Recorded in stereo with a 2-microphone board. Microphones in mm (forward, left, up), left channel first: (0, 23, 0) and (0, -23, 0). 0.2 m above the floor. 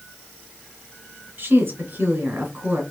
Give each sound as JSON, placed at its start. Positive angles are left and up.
{"t": 1.4, "sound": "a woman speaking", "side_deg": -55, "distance_m": 2.5}